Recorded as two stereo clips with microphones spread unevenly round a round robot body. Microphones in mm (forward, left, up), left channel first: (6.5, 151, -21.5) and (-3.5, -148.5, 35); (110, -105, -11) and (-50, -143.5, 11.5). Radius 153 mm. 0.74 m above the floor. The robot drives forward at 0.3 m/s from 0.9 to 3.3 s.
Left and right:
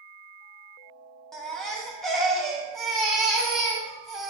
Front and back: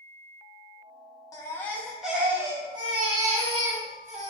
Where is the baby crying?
25° left, 0.6 m; by 4.3 s 165° left, 0.6 m.